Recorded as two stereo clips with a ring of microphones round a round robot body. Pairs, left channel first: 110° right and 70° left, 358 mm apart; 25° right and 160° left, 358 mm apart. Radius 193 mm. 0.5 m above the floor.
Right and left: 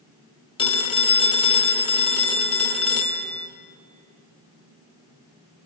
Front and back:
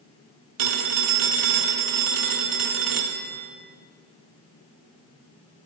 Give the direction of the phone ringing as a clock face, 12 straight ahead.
6 o'clock.